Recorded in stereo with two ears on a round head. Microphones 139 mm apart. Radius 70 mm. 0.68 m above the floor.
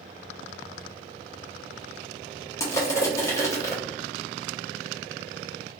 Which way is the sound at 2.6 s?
20° left (ahead or behind).